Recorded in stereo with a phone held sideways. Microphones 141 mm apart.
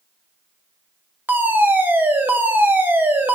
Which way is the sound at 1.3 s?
15° right (ahead or behind).